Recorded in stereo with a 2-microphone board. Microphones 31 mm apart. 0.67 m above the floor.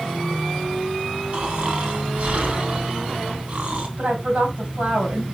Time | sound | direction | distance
1.3 | snoring | 50° right (ahead or behind) | 1.6 m
4.0 | a woman speaking | 65° right (ahead or behind) | 3 m